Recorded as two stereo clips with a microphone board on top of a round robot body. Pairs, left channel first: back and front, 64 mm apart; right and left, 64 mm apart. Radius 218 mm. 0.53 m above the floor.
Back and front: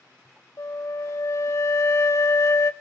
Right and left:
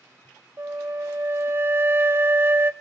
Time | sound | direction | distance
0.6 | a flute | 140° left | 1.0 m